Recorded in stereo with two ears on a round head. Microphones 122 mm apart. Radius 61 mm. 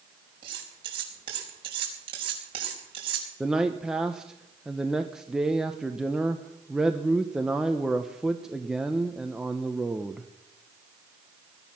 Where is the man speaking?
5° right (ahead or behind), 0.8 m.